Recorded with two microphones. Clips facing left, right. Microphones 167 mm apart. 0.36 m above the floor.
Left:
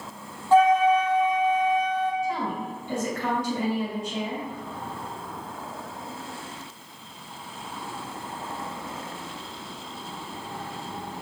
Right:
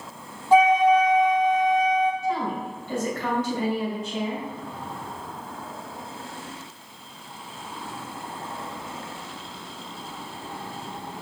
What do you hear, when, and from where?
0.5 s a flute: 15° right (ahead or behind), 0.5 m
2.2 s a woman speaking: 15° left (ahead or behind), 1.8 m